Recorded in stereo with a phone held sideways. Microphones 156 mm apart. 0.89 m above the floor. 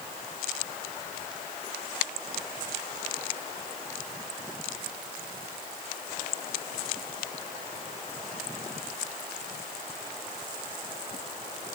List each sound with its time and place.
Only background noise.